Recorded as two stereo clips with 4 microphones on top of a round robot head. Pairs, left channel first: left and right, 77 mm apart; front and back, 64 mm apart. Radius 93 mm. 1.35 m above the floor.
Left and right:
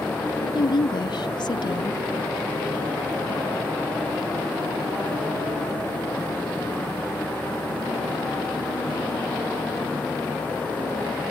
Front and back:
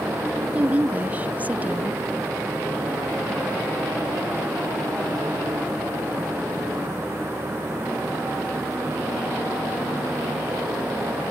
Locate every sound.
0.4 s a woman speaking: 115° left